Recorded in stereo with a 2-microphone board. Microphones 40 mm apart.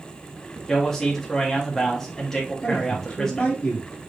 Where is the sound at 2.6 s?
25° left (ahead or behind), 1.2 m.